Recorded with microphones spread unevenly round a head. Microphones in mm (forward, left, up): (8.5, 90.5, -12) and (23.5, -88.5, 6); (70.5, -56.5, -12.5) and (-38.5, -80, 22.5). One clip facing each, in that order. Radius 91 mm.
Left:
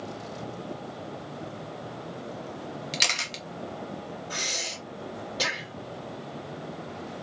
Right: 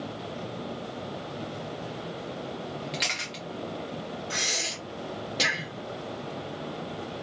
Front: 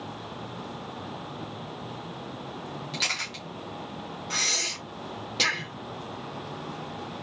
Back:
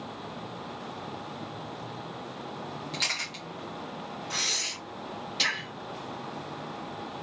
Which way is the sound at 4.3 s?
25° right.